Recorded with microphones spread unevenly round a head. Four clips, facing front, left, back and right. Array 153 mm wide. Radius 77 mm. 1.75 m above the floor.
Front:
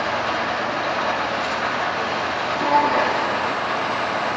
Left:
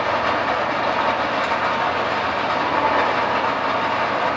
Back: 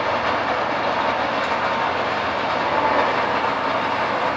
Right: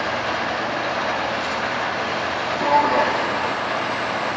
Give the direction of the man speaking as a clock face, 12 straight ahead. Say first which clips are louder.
Right 4 dB, front 2 dB; 3 o'clock.